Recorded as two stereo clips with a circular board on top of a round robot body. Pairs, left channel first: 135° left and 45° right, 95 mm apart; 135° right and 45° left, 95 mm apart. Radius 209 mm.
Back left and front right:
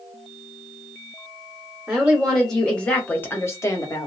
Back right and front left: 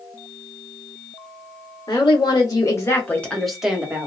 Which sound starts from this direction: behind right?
A woman speaking, at 1.9 s.